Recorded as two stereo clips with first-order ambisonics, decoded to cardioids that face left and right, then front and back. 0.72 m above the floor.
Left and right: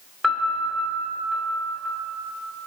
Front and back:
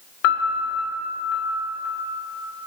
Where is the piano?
Straight ahead, 2 m.